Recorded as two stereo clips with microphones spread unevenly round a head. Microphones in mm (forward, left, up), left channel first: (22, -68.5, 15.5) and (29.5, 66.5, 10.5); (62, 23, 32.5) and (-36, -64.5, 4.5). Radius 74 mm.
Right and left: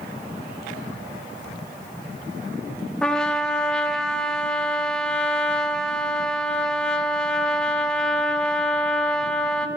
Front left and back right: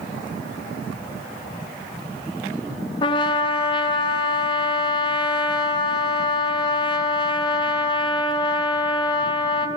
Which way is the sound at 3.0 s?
10° right.